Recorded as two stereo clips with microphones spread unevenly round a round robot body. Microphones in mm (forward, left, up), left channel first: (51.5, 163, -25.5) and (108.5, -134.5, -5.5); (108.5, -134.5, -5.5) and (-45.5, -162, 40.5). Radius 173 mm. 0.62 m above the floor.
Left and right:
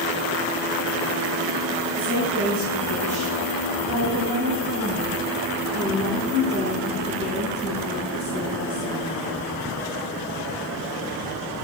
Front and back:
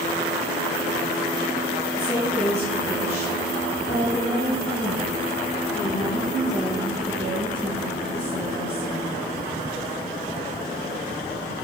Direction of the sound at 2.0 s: 30° right.